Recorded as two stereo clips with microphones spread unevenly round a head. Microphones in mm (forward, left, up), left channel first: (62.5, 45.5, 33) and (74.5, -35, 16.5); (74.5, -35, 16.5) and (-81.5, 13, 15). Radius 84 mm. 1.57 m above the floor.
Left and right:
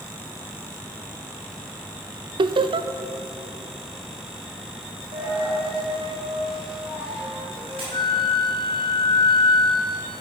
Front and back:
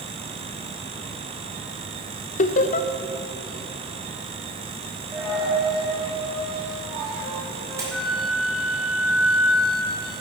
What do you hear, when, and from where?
2.4 s laughter: 65° right, 0.6 m
5.1 s a dropped coin: 125° right, 3.5 m
7.9 s a flute: 70° left, 1.6 m